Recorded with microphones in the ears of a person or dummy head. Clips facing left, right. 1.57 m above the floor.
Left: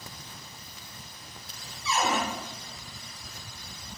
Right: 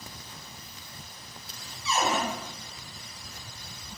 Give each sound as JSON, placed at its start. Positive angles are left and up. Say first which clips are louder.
{"t": 1.9, "sound": "a cupboard door", "louder": "even", "side_deg": -20, "distance_m": 1.1}